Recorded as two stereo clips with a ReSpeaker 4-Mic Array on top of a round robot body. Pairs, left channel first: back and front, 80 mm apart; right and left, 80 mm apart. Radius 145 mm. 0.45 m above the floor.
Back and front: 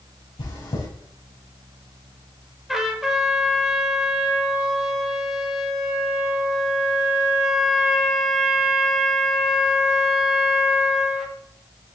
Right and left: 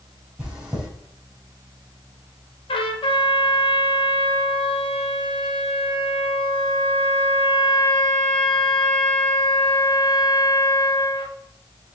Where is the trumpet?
85° right, 1.1 m.